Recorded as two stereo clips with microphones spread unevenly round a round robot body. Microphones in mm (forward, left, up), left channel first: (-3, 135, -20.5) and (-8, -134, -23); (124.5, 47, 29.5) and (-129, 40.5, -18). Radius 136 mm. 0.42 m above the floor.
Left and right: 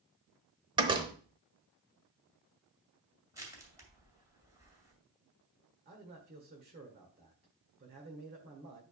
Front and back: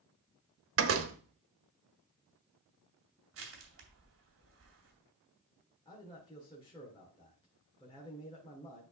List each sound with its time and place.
0.8 s a door slam: 160° right, 0.8 m
3.3 s crushing: 170° right, 2 m
5.8 s a man speaking: 75° right, 1.6 m